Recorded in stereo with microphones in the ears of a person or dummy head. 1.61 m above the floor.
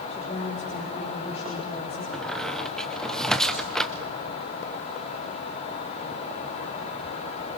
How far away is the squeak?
About 0.6 m.